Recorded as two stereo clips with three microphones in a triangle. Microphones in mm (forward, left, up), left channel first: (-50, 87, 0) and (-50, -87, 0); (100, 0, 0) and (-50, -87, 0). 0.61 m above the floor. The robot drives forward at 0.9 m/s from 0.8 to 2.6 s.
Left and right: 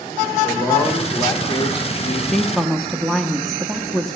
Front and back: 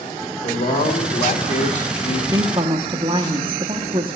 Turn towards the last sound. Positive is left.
turn(degrees=180)